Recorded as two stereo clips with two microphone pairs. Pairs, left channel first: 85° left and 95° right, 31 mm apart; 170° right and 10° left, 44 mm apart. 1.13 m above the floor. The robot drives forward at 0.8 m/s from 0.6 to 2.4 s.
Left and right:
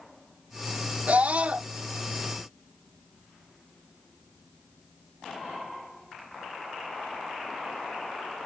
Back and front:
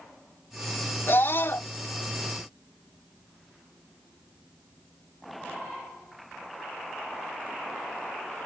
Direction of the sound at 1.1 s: 135° right.